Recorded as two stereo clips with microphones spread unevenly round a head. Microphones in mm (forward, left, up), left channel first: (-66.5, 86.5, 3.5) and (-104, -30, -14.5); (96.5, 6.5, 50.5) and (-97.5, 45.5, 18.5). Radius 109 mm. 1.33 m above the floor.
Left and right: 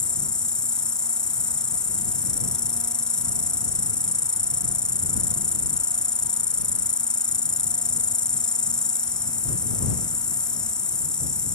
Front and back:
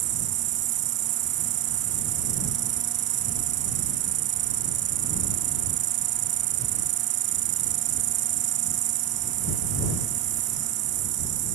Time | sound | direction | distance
0.0 | an insect | 145° left | ?